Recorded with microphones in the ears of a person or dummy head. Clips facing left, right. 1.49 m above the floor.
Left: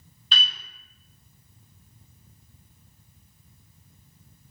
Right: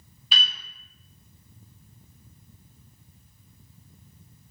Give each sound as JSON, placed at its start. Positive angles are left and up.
{"t": 0.3, "sound": "a piano", "side_deg": -10, "distance_m": 1.1}